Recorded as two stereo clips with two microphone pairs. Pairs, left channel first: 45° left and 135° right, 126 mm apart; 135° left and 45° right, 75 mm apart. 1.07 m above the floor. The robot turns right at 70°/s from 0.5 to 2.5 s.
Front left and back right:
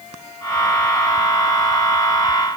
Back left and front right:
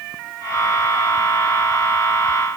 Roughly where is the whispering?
I don't hear whispering.